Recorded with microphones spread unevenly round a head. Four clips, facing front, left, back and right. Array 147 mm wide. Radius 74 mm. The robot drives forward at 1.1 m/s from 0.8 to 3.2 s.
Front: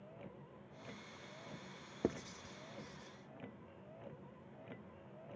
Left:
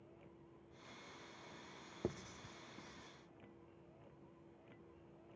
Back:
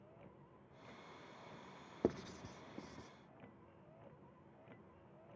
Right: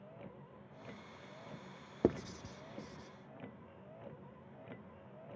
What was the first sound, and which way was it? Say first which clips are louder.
A vehicle: right 8 dB, front 6 dB; 50° right.